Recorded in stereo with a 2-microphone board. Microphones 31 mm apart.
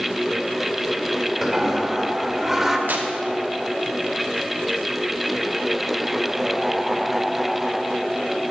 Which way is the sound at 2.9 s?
65° right (ahead or behind).